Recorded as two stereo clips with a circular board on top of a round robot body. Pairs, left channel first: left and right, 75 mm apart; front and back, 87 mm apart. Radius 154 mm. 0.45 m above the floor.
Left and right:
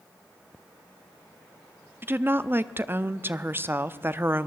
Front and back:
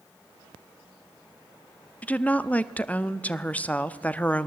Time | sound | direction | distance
2.0 | a woman speaking | 60° right | 1.1 m